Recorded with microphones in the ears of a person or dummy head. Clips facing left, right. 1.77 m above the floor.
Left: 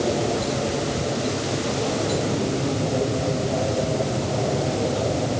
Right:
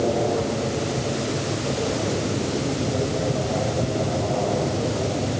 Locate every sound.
Only background noise.